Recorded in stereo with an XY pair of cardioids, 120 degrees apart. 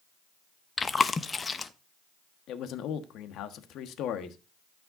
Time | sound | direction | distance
0.8 | chewing | 25° left | 0.8 m
2.5 | a man speaking | 70° left | 1.4 m